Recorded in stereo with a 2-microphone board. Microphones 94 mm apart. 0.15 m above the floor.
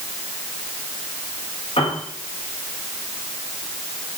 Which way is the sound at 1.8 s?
80° left.